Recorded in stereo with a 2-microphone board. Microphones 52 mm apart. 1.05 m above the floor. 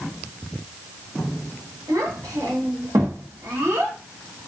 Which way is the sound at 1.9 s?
75° right (ahead or behind).